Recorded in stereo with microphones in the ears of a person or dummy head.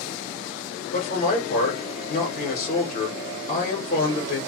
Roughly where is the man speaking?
Left.